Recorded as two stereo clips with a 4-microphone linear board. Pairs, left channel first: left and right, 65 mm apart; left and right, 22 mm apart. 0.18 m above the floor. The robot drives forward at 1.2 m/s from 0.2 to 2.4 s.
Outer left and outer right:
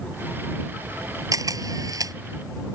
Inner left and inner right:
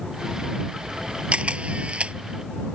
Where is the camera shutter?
70° right (ahead or behind).